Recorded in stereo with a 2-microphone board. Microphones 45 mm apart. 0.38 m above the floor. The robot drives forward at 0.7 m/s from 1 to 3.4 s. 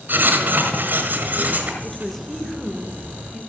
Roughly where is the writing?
Right.